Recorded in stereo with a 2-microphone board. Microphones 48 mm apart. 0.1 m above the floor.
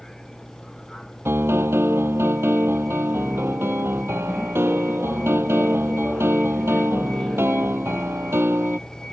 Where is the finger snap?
No finger snap in this recording.